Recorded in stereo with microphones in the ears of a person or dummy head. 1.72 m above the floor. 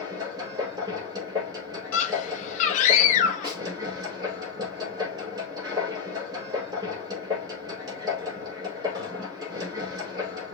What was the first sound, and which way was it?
A machine running, 25° right (ahead or behind).